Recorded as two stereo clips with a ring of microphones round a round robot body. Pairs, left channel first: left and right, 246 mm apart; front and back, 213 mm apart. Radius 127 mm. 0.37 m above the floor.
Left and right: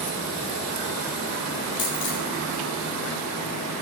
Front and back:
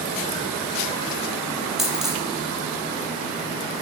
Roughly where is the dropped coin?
Left.